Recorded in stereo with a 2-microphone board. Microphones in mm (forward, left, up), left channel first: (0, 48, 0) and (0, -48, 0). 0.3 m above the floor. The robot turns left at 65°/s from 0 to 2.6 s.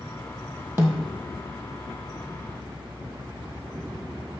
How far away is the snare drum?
About 1.5 m.